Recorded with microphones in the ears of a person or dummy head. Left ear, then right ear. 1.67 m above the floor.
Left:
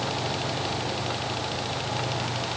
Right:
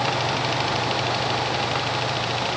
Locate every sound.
Only background noise.